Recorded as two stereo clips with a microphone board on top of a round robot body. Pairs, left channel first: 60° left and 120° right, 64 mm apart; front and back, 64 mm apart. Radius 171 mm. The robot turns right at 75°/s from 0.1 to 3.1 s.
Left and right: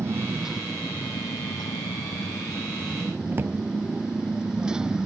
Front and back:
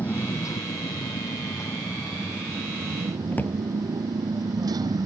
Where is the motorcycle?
65° right; by 5.1 s 160° left.